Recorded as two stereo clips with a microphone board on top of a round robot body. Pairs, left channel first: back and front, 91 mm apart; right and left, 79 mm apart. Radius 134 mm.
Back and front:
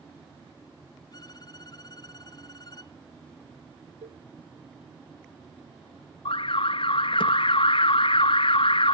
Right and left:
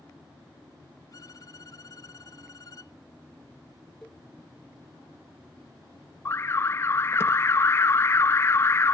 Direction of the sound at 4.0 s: 5° right.